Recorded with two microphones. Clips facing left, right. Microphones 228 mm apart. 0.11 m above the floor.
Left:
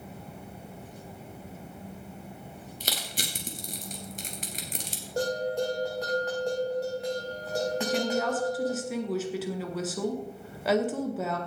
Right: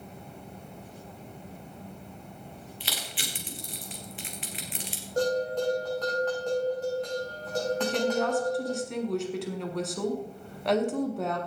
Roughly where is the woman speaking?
Centre.